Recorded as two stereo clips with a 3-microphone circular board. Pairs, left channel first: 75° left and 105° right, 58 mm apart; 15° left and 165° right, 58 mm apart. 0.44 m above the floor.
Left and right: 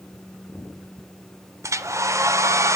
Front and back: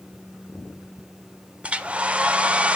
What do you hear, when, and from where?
1.6 s a hair dryer: 100° right, 0.5 m